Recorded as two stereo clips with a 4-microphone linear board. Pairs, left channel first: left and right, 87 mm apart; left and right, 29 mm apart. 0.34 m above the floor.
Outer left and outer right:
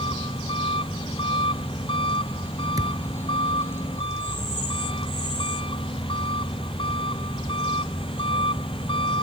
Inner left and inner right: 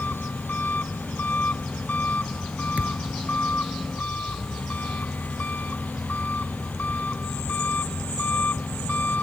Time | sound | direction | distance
0.0 | an engine running | 85° left | ?
2.8 | a thud | 45° right (ahead or behind) | ?